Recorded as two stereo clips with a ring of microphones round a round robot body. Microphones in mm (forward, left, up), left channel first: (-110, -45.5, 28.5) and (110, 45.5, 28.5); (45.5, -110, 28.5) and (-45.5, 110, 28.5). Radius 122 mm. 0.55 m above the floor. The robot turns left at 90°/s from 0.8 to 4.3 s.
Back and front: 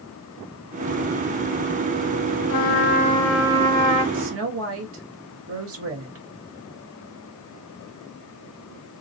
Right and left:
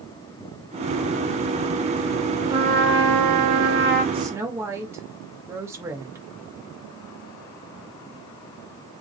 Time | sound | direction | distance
2.5 | a trumpet | 170° right | 1.1 m
4.1 | a woman speaking | 50° left | 2.0 m